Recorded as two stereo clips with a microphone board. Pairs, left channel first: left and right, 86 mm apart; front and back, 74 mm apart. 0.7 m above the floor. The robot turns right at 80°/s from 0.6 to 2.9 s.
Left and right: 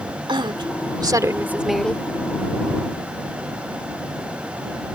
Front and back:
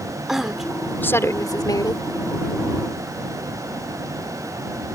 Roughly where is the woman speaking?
Right.